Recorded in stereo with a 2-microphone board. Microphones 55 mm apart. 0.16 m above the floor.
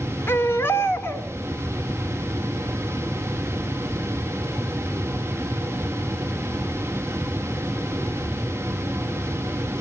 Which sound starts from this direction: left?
A baby crying, at 0.3 s.